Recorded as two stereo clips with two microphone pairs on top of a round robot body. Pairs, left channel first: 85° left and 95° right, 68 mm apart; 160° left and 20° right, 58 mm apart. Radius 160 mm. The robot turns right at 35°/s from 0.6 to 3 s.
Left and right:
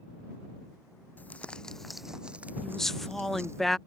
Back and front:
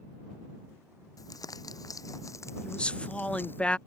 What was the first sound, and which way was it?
Crumpling, 150° left.